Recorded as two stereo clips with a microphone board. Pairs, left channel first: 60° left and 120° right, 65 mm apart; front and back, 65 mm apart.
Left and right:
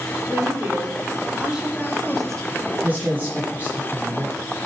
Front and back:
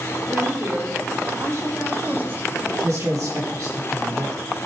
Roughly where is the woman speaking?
Behind.